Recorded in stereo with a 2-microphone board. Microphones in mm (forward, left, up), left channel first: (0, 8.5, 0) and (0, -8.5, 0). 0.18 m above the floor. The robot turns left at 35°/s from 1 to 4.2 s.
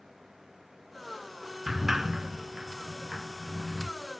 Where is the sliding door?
15° right (ahead or behind), 0.8 m; by 3.9 s 55° right (ahead or behind), 0.8 m.